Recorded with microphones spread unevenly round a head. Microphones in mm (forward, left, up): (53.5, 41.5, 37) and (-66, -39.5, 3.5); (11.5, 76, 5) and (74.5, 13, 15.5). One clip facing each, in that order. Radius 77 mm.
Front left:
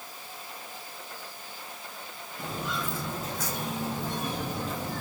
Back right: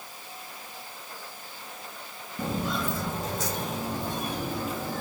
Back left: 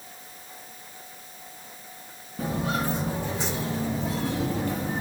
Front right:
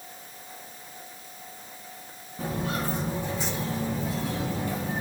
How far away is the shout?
I don't hear a shout.